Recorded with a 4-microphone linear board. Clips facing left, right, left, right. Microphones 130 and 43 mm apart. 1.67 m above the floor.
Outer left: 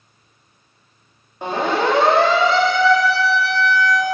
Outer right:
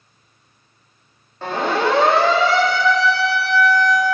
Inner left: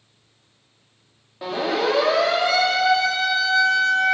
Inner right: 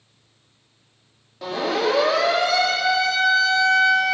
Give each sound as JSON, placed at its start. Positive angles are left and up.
{"t": 1.4, "sound": "a siren", "side_deg": 15, "distance_m": 5.5}